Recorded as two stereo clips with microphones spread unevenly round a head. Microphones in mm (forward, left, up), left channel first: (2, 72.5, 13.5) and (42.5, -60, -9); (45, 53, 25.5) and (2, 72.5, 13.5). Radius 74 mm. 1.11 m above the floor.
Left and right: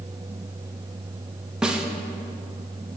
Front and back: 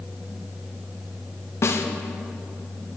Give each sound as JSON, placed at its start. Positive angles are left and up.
{"t": 1.6, "sound": "a snare drum", "azimuth_deg": 10, "distance_m": 1.0}